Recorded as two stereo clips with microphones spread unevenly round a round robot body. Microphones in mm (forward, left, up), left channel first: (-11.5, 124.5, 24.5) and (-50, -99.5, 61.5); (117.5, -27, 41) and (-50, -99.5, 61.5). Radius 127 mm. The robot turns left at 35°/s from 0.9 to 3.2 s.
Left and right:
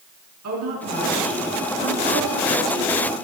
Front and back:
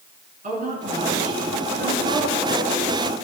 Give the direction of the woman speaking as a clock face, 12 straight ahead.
4 o'clock.